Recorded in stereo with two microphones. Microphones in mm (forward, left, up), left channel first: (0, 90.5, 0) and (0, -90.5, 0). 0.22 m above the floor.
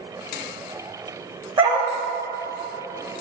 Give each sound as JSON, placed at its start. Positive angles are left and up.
{"t": 1.6, "sound": "a dog barking", "side_deg": -25, "distance_m": 3.5}